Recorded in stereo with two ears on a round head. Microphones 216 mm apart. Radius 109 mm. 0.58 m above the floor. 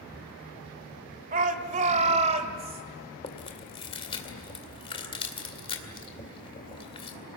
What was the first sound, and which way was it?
A shout, 35° right (ahead or behind).